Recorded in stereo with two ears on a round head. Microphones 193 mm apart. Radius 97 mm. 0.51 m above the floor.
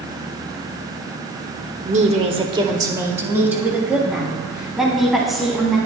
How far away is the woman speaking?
About 1.1 m.